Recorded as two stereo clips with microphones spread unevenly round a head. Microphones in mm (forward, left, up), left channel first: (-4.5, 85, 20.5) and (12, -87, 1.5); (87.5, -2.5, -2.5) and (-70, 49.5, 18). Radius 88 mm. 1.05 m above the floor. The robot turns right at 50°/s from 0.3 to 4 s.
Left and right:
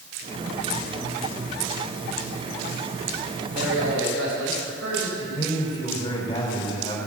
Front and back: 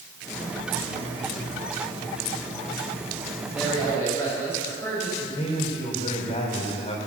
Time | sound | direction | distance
3.5 | a man speaking | 120° right | 5.5 m
5.2 | a man speaking | 35° left | 4 m